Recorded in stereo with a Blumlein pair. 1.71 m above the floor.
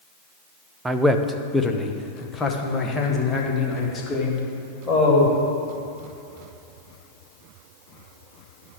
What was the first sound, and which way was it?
A man speaking, 10° right.